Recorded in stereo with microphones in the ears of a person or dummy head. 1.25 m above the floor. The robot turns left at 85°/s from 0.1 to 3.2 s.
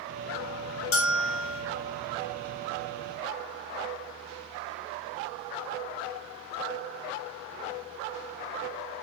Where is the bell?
105° left, 1.5 m; by 1.6 s 45° left, 1.5 m.